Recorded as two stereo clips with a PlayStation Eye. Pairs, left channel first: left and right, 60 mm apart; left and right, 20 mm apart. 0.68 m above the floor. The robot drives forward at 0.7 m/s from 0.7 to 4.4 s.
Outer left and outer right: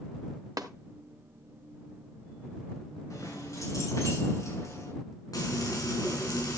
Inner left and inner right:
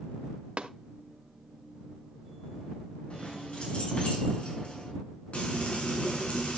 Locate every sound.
0.6 s tapping: 85° right, 0.9 m
3.1 s keys jangling: 70° left (ahead or behind), 4.5 m; by 4.9 s 60° left (ahead or behind), 5 m
5.3 s frying: 90° left, 4.5 m